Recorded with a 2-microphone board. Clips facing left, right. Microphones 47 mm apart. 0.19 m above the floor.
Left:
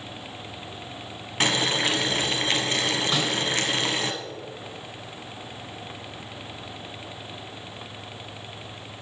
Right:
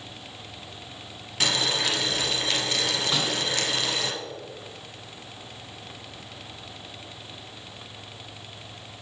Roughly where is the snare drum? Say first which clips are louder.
Left 2 dB; centre.